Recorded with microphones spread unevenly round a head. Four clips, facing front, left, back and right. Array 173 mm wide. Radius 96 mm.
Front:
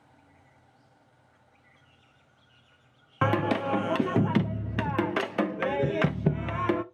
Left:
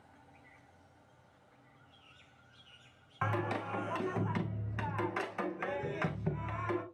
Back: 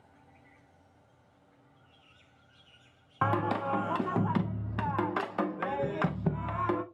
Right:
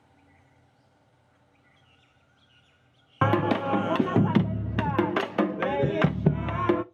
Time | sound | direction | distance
3.2 | singing | 75° right | 0.6 m